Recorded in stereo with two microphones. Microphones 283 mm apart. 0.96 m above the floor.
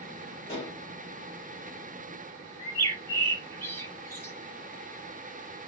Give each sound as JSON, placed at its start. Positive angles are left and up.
{"t": 0.5, "sound": "dishes clattering", "side_deg": 20, "distance_m": 4.0}
{"t": 2.6, "sound": "a bird", "side_deg": 5, "distance_m": 4.5}